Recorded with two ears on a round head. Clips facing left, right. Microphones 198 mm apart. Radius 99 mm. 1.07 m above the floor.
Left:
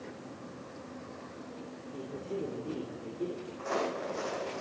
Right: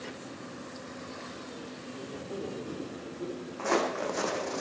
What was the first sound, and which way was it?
A man speaking, 25° left (ahead or behind).